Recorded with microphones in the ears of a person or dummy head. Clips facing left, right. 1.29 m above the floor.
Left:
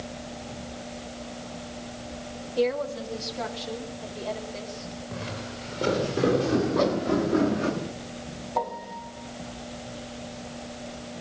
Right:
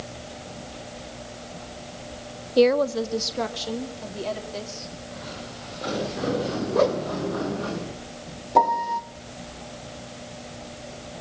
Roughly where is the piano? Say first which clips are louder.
Right 10 dB; right.